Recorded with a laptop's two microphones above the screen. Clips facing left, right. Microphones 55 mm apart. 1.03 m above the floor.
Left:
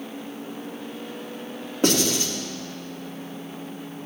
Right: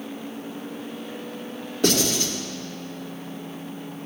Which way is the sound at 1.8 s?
25° left (ahead or behind).